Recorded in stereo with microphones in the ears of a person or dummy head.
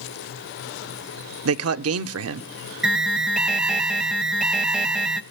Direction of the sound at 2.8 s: 5° right (ahead or behind).